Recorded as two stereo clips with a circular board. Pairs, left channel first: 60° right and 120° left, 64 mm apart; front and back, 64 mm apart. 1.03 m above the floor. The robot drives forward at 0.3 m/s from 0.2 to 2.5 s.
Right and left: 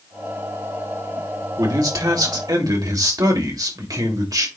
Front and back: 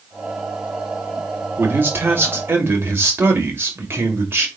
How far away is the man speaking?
About 2 m.